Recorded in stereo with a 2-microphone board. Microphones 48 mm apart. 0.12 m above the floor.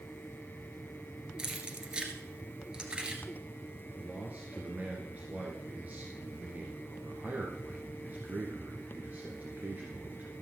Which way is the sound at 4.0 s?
35° right (ahead or behind).